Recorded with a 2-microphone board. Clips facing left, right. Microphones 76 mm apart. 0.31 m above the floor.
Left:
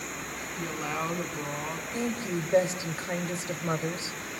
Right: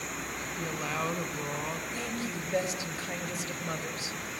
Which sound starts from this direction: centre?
A woman speaking, at 0.6 s.